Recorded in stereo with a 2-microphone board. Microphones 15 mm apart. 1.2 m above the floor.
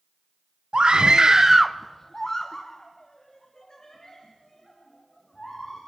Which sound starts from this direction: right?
A scream, at 0.7 s.